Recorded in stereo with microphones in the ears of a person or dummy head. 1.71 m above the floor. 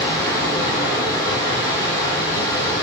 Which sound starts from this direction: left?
Running water, at 0.0 s.